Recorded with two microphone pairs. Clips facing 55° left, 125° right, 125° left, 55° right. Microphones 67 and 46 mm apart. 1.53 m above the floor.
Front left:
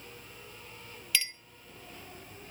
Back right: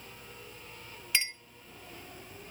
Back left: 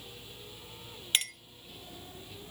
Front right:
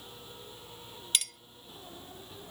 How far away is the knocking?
I don't hear knocking.